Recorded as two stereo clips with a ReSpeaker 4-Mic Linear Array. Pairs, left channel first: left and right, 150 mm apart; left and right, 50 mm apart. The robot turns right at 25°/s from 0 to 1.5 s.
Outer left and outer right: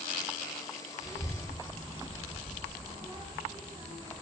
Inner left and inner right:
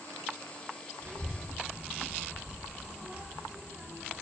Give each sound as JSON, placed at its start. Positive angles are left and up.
{"t": 1.0, "sound": "a child speaking", "side_deg": -55, "distance_m": 0.8}